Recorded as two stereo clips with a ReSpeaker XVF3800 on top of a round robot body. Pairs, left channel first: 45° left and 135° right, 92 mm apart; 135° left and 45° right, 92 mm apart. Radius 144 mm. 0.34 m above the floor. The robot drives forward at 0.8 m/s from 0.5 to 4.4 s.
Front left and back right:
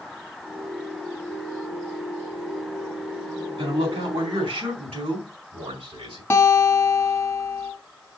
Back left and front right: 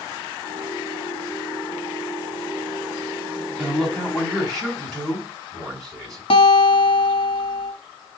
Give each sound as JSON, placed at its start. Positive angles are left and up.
{"t": 3.6, "sound": "a man speaking", "azimuth_deg": -135, "distance_m": 4.0}
{"t": 6.3, "sound": "a guitar", "azimuth_deg": 110, "distance_m": 1.2}